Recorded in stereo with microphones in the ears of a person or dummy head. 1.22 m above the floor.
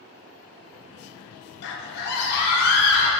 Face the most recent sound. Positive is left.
turn(degrees=50)  # may be behind; listen again after turning